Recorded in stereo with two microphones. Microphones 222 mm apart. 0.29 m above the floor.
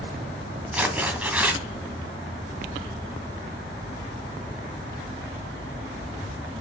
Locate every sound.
0.7 s tearing paper: 5° right (ahead or behind), 2 m